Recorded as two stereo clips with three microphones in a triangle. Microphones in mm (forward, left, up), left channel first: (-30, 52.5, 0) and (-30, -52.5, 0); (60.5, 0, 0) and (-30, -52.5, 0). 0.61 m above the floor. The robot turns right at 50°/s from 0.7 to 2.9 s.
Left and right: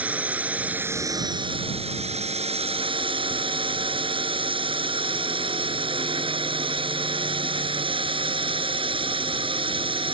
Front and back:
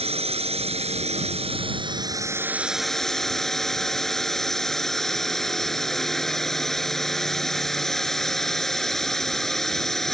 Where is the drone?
165° right; by 10.2 s 55° right.